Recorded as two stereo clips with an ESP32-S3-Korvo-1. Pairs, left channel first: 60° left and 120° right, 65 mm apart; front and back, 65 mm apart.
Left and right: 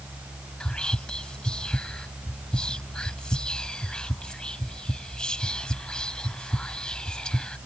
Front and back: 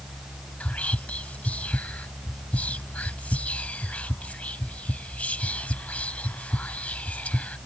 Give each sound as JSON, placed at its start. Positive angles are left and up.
{"t": 0.6, "sound": "whispering", "azimuth_deg": 10}